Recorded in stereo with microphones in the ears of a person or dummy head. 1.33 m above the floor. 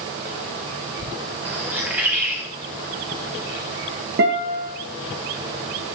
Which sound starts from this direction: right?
A guitar, at 4.2 s.